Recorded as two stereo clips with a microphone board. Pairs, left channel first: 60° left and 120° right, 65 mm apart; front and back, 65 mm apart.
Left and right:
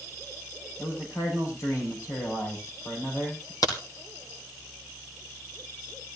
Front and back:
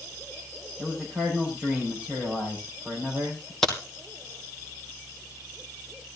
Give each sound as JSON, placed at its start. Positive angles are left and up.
{"t": 0.8, "sound": "a man speaking", "azimuth_deg": 105, "distance_m": 6.0}
{"t": 3.6, "sound": "a crack", "azimuth_deg": 80, "distance_m": 3.0}